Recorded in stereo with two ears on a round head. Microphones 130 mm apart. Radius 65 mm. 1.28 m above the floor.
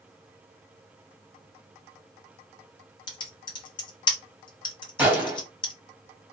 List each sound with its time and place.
3.1 s typing on a keyboard: 35° left (ahead or behind), 0.7 m
5.0 s a gunshot: 10° right (ahead or behind), 1.0 m